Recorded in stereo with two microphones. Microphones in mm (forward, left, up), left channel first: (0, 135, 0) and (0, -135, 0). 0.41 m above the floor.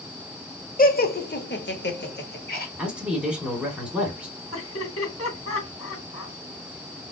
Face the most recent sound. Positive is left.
turn(degrees=55)  # may be behind; listen again after turning